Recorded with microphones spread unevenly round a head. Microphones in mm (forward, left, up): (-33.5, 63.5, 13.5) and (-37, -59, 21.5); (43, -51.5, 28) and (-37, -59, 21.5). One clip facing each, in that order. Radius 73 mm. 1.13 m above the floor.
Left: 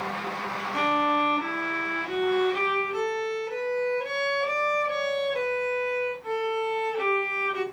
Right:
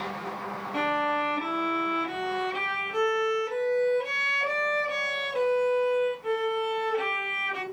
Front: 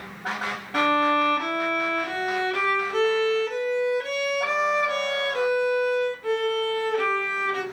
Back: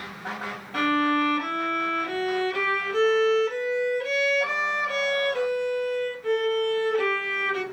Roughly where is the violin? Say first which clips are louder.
Left 3 dB, front 2 dB; ahead right.